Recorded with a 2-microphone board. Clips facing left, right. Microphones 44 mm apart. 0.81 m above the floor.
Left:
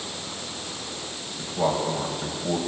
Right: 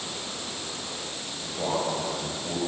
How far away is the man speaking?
About 4.5 m.